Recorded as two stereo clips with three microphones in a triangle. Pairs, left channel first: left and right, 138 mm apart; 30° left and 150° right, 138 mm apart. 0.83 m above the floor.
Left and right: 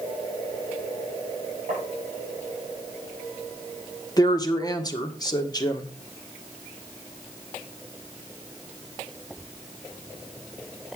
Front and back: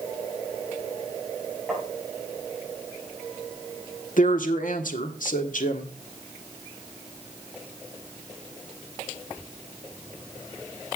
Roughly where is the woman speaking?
Ahead left.